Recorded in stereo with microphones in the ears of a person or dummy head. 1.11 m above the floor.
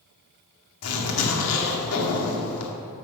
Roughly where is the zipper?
Left.